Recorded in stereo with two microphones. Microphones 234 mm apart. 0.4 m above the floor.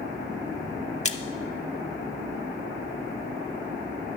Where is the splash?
30° left (ahead or behind), 0.8 m.